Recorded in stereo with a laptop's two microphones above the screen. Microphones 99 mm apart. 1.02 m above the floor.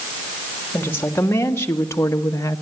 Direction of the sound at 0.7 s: 20° left (ahead or behind).